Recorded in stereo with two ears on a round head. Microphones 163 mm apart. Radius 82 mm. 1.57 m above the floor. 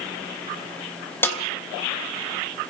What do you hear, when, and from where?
1.2 s a snare drum: 15° left (ahead or behind), 3 m